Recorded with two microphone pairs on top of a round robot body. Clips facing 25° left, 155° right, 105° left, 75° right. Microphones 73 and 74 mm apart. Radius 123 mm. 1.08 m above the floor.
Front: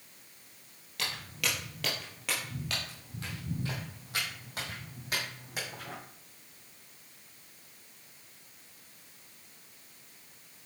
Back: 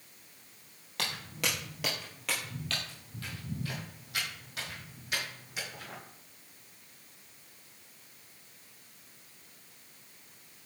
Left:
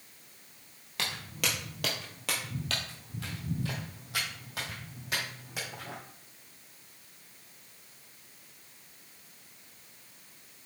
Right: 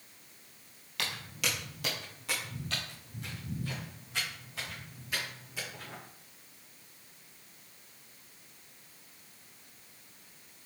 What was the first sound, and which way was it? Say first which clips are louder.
Footsteps: back 1 dB, left 1 dB; 165° left.